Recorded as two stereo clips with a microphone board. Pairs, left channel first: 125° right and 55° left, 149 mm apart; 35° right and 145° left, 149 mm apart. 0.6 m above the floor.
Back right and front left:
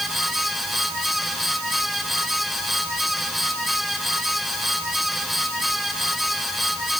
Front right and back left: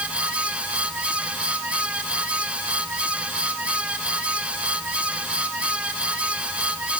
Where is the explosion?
I don't hear an explosion.